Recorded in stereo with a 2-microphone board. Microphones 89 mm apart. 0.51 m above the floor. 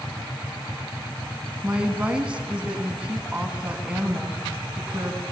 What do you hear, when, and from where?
1.6 s a woman speaking: 10° right (ahead or behind), 4.5 m